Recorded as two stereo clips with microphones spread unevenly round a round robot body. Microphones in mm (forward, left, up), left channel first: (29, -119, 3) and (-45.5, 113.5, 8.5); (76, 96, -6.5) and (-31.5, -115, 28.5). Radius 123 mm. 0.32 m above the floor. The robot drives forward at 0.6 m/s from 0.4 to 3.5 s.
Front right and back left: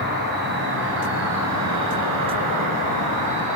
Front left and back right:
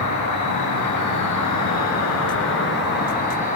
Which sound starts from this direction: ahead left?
An insect, at 0.0 s.